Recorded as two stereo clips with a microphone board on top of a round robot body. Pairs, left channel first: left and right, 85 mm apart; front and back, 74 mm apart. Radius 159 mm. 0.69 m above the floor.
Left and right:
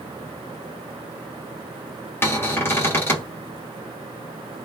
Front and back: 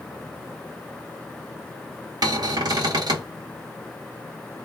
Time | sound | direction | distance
2.2 | a cupboard door | 155° left | 1.4 m